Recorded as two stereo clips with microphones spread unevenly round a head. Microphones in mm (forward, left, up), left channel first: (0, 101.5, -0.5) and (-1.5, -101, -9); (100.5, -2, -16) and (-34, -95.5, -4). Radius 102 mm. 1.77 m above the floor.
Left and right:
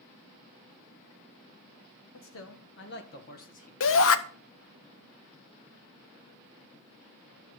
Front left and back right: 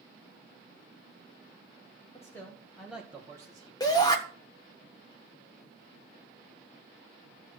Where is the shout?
110° left, 1.3 m.